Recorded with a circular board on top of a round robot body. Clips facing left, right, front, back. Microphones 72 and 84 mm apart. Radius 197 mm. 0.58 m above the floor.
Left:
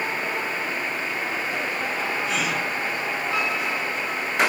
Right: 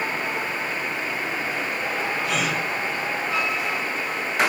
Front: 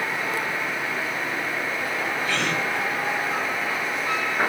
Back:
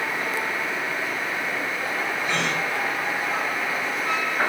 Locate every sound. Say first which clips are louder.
2.2 s a gasp: right 1 dB, even; 110° right, 3.5 m